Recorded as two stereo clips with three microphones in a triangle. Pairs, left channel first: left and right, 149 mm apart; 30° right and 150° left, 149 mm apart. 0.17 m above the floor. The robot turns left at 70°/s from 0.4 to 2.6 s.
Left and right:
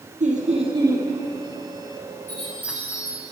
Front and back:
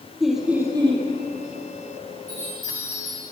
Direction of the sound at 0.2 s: 120° right.